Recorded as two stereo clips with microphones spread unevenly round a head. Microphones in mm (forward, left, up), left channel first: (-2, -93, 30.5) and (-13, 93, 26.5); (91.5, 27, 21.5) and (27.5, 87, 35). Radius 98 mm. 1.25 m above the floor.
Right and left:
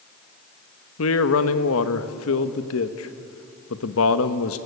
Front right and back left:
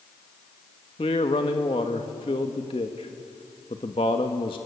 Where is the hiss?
No hiss in this recording.